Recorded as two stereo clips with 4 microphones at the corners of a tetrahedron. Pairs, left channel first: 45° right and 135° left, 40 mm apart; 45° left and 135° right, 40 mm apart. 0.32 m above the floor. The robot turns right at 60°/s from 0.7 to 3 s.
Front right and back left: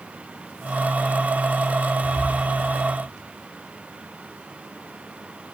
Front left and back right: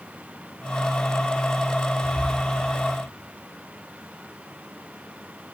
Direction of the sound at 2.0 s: 50° left.